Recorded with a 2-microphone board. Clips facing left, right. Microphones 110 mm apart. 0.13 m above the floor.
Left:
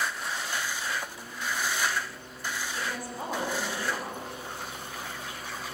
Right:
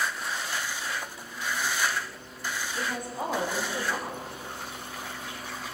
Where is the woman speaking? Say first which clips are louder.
Right 2 dB; 20° right (ahead or behind), 7.5 m.